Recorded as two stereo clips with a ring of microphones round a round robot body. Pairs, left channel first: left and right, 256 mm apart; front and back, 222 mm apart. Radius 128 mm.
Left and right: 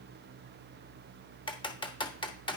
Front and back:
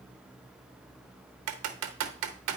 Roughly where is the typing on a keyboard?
Behind.